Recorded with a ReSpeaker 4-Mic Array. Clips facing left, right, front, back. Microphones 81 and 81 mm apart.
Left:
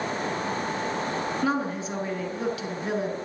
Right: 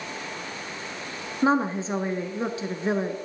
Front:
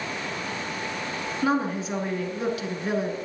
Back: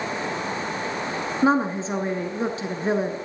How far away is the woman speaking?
About 1.4 m.